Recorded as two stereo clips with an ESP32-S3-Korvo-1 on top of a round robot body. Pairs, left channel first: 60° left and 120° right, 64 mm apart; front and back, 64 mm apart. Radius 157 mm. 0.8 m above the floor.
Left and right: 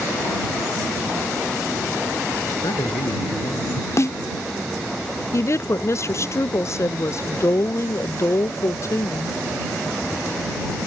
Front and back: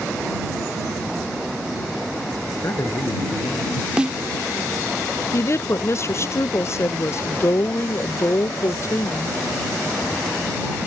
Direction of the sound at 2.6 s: 45° left.